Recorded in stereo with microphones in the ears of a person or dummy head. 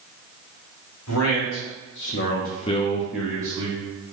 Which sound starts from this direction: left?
A man speaking, at 1.1 s.